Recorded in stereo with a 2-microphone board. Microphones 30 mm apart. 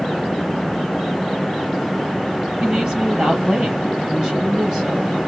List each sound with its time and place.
2.6 s a woman speaking: 35° right (ahead or behind), 3.5 m